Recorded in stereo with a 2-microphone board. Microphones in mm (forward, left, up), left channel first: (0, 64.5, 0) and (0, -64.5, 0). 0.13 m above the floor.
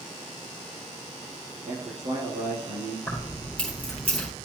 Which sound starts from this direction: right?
A man speaking, at 1.6 s.